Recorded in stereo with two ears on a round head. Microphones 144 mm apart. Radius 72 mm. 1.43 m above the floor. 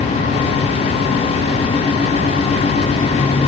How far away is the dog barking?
No dog barking in this recording.